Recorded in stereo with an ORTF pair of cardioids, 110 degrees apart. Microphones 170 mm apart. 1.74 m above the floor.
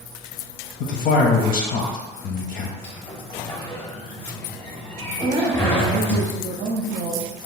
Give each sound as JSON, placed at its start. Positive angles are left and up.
{"t": 0.8, "sound": "a man speaking", "azimuth_deg": 60, "distance_m": 0.6}
{"t": 2.8, "sound": "a sliding door", "azimuth_deg": 10, "distance_m": 0.8}
{"t": 5.2, "sound": "a woman speaking", "azimuth_deg": -55, "distance_m": 1.0}